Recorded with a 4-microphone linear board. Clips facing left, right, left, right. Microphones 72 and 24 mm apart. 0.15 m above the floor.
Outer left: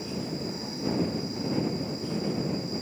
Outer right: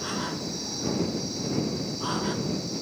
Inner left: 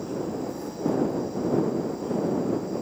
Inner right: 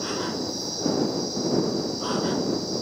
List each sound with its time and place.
0.0 s an insect: 75° right (ahead or behind)